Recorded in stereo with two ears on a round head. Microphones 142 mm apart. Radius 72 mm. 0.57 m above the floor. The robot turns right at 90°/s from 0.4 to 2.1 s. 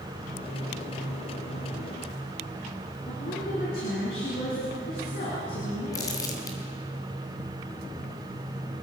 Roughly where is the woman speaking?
Left.